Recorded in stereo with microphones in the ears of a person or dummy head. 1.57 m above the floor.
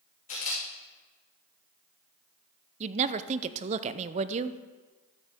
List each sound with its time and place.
0.3 s a camera shutter: 40° left (ahead or behind), 3 m
2.8 s a woman speaking: 35° right (ahead or behind), 0.6 m